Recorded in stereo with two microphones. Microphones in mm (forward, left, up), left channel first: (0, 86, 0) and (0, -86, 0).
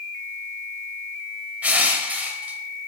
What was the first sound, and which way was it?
Crushing, 10° right (ahead or behind).